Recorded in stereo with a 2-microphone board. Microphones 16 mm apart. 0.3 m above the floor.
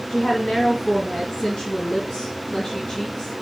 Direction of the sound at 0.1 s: 50° left (ahead or behind).